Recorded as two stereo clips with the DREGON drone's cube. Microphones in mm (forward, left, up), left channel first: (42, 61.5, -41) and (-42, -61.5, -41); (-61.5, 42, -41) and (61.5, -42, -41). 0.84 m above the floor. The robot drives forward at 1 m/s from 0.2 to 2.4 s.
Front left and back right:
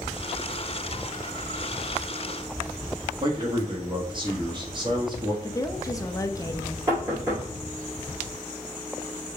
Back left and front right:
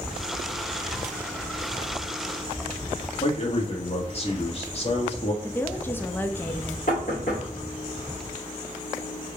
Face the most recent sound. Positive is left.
turn(degrees=170)